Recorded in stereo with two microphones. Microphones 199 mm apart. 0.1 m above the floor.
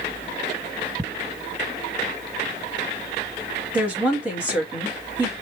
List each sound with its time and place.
1.0 s ticking: 10° right (ahead or behind), 1.7 m
3.7 s a woman speaking: 5° right (ahead or behind), 1.7 m